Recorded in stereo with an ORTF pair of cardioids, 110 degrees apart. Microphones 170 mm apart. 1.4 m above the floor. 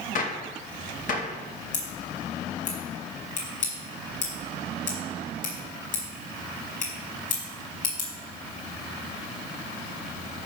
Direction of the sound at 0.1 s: 50° left.